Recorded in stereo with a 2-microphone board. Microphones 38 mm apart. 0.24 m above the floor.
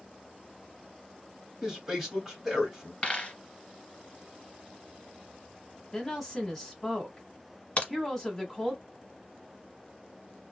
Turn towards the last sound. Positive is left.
turn(degrees=40)  # may be behind; listen again after turning